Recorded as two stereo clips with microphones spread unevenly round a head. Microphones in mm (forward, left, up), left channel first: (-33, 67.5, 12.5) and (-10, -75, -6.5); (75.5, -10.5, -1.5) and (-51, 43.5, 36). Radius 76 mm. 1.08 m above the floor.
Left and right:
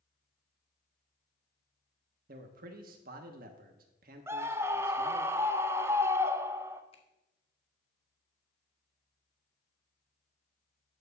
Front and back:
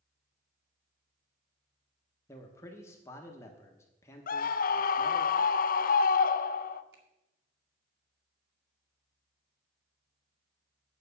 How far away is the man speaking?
About 1.0 m.